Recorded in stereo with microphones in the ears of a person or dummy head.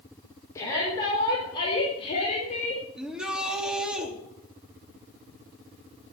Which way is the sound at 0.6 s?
15° left (ahead or behind).